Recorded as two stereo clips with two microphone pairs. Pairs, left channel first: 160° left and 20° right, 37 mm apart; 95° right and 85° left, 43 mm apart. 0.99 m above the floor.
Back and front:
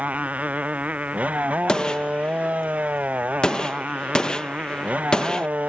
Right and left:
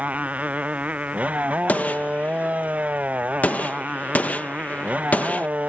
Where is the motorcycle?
30° left.